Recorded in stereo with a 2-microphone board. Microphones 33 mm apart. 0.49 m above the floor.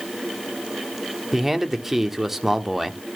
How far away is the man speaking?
About 1.2 m.